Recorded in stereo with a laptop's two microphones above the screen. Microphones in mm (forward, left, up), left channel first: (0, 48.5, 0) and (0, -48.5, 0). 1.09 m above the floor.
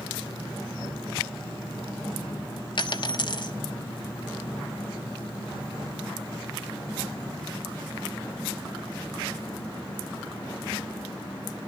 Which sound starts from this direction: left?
A dropped coin, at 2.8 s.